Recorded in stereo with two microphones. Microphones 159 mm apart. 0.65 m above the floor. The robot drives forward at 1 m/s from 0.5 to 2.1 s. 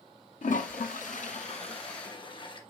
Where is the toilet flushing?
60° left (ahead or behind), 1.0 m; by 2.6 s 30° left (ahead or behind), 1.7 m.